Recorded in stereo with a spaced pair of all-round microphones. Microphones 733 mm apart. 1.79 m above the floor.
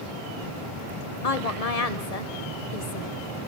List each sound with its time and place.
1.2 s a woman speaking: 55° left (ahead or behind), 1.1 m